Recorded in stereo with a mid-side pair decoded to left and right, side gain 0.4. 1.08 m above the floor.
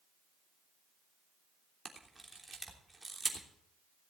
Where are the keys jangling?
No keys jangling in this recording.